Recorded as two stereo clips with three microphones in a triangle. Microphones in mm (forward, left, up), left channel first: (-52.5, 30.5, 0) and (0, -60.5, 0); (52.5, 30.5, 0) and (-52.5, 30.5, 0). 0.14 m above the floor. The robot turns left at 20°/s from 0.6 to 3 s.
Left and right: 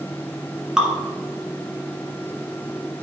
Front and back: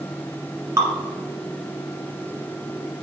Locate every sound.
0.8 s dripping: 140° right, 1.8 m